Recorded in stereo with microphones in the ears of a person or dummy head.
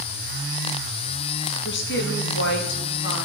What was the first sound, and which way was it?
A woman speaking, 60° left (ahead or behind).